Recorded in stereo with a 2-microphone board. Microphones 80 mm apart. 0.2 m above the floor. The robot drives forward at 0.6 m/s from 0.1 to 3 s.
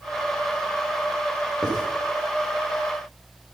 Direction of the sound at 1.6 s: 70° right (ahead or behind).